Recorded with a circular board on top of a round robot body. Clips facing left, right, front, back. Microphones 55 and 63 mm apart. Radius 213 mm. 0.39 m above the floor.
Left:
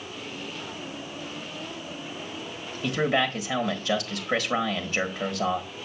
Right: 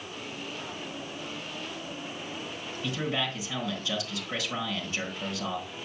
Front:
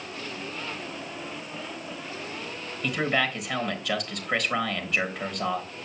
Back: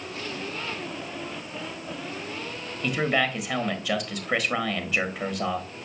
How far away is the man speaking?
About 1.5 m.